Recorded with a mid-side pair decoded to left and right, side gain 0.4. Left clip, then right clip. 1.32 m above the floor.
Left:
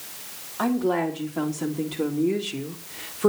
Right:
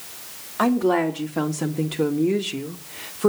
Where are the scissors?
No scissors in this recording.